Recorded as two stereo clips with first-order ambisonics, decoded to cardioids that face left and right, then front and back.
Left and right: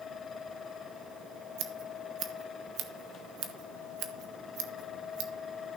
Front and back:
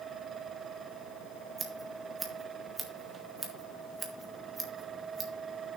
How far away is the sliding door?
I don't hear a sliding door.